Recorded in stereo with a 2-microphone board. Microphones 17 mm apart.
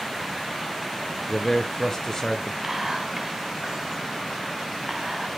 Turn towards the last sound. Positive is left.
turn(degrees=-30)  # may be behind; listen again after turning